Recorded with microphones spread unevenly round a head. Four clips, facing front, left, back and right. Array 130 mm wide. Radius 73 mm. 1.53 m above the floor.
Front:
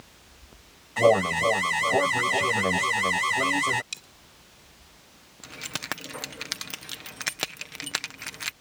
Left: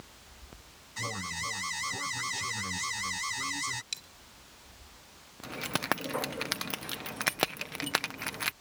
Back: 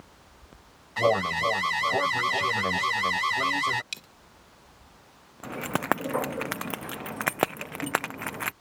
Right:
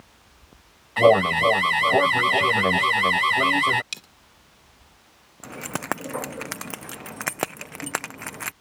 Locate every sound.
1.0 s an alarm: 70° right
3.9 s a dropped coin: 110° right
5.4 s keys jangling: 165° right